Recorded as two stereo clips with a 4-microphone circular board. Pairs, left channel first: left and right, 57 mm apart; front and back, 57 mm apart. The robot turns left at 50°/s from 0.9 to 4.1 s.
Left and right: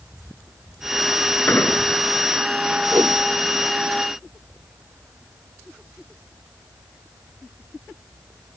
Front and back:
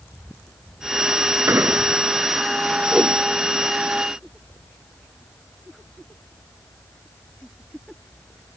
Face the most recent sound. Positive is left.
turn(degrees=-160)